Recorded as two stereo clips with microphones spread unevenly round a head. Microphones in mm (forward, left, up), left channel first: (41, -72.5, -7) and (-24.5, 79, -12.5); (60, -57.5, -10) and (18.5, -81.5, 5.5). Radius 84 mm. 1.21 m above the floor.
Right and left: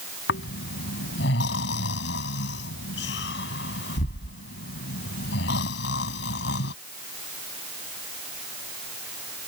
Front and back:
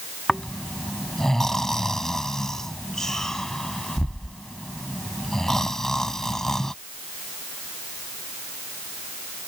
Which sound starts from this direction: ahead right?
Snoring, at 0.3 s.